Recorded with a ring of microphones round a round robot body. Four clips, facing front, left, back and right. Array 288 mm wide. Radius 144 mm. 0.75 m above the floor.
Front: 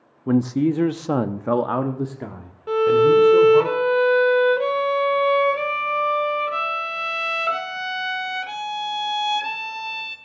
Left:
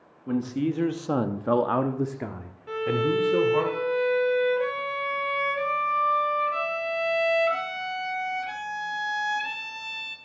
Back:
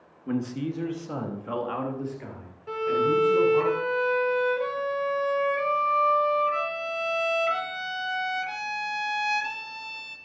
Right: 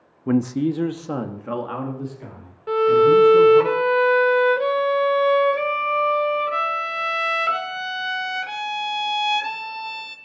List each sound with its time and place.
0.3 s a man speaking: 45° right, 0.9 m; by 3.7 s 55° left, 2.5 m
2.7 s a violin: 50° right, 1.3 m